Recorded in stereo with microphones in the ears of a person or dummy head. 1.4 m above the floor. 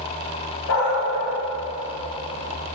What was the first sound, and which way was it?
A dog barking, 60° left (ahead or behind).